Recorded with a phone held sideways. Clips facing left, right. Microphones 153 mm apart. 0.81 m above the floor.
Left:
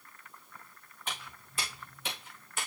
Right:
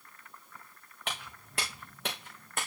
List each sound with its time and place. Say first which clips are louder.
1.1 s footsteps: right 2 dB; 70° right (ahead or behind), 4.5 m; by 2.7 s 55° right (ahead or behind), 3.5 m